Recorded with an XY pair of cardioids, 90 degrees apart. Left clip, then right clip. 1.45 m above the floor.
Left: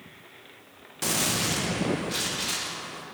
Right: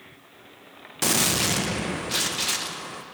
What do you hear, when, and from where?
1.0 s a gunshot: 55° right, 1.1 m